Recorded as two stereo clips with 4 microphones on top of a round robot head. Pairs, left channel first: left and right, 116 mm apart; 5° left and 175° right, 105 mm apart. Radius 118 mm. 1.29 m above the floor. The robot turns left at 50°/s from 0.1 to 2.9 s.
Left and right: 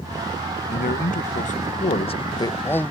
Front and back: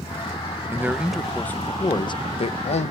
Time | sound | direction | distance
0.7 | a man speaking | 120° left | ?